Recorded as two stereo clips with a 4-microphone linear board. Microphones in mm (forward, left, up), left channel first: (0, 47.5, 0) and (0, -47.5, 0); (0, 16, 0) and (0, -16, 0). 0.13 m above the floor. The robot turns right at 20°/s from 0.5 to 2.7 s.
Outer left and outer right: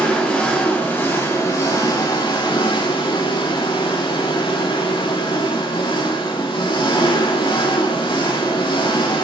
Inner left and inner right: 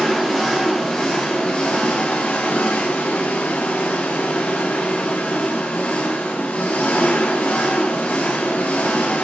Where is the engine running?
10° left, 5.5 m; by 9.2 s 55° left, 5.5 m.